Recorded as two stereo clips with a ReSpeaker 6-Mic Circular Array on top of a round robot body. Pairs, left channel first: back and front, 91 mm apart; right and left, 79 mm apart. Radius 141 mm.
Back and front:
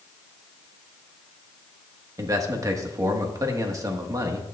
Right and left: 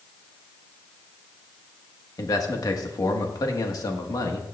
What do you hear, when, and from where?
2.2 s a man speaking: 50° right, 1.6 m